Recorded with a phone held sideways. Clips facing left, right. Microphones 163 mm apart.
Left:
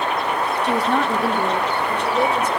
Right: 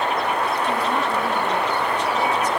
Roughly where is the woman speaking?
Left.